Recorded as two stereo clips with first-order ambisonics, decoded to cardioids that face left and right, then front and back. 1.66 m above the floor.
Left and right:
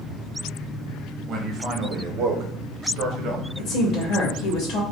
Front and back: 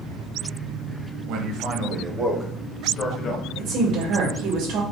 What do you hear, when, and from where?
1.3 s a man speaking: 155° right, 1.0 m; by 3.5 s 45° right, 1.0 m
3.6 s a woman speaking: 140° left, 1.6 m